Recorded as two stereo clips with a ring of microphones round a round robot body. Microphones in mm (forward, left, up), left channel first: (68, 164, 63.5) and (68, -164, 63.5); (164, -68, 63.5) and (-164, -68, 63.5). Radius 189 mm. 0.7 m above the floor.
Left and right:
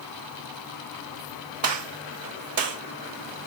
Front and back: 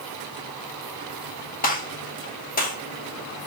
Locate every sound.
1.6 s a gunshot: 60° right, 1.4 m